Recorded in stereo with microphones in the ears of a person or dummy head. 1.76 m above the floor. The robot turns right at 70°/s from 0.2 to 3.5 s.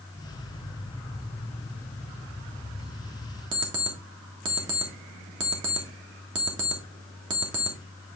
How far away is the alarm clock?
About 1.4 m.